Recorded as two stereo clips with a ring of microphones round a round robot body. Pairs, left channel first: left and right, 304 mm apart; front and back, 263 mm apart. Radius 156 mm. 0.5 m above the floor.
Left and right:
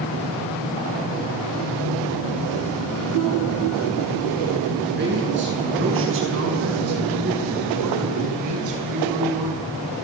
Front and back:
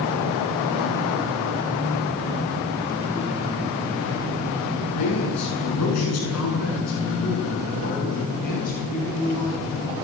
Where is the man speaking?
35° right, 8 m; by 9.6 s 70° right, 6.5 m.